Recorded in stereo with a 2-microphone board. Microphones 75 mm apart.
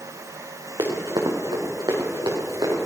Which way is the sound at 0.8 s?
75° right (ahead or behind).